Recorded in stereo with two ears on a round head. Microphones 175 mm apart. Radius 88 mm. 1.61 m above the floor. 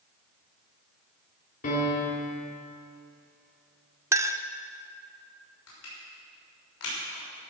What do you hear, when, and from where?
1.6 s a piano: 45° left (ahead or behind), 3.5 m
4.1 s a clink: 15° right (ahead or behind), 0.5 m
5.7 s crushing: 80° left, 6 m